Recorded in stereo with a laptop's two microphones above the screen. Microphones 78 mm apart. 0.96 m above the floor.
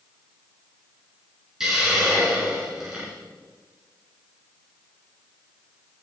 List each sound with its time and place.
1.6 s a hiss: 5° right (ahead or behind), 5 m